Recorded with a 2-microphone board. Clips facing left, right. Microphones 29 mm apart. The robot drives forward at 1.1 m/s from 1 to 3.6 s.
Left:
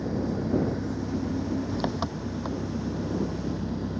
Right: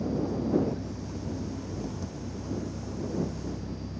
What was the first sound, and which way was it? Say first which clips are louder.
An engine running: left 1 dB; 60° left (ahead or behind).